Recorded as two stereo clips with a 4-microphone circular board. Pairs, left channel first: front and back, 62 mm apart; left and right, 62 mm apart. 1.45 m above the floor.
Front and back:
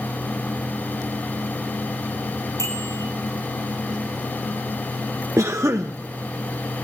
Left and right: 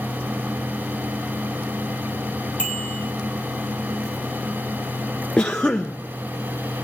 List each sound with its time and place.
2.6 s a bicycle bell: 20° left, 9 m
5.4 s a cough: 160° left, 0.6 m